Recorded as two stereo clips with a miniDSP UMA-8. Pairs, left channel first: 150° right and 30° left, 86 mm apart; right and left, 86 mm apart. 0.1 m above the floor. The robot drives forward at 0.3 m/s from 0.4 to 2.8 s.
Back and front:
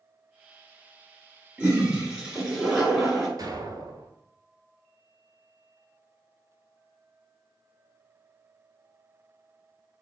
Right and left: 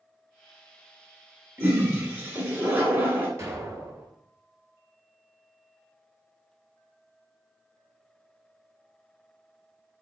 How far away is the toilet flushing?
About 1.4 m.